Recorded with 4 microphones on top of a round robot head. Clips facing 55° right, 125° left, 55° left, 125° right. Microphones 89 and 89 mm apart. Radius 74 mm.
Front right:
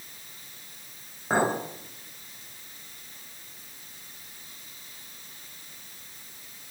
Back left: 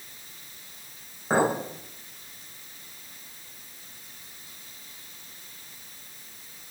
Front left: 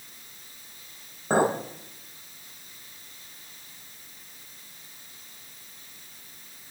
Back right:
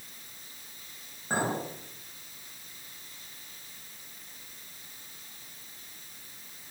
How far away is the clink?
About 5.5 m.